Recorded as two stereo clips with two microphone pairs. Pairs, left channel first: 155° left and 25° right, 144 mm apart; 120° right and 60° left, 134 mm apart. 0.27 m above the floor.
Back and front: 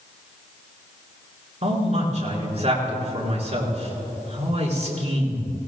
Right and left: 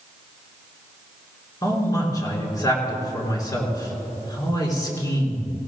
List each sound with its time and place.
1.6 s a man speaking: 65° right, 3 m